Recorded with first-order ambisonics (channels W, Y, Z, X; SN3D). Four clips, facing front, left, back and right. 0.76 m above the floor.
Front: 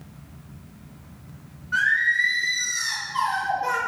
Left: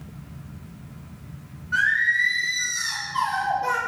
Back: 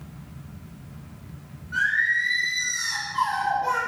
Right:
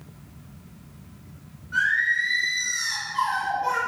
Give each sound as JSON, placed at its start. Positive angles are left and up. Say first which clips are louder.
{"t": 1.7, "sound": "singing", "louder": "left 2 dB, front 2 dB", "azimuth_deg": 45, "distance_m": 0.6}